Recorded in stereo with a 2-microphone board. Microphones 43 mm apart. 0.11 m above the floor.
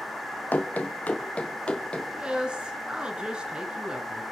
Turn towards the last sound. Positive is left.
turn(degrees=-25)  # may be behind; listen again after turning